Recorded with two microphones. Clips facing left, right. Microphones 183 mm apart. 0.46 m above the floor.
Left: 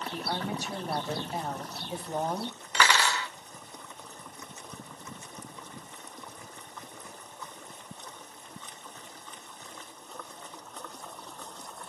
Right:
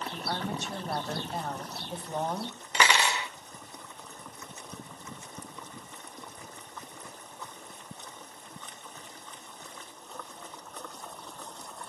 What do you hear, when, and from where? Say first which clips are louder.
0.1 s a woman speaking: left 2 dB; 10° left (ahead or behind), 2 m
2.7 s cutlery clinking: even; 20° right (ahead or behind), 0.7 m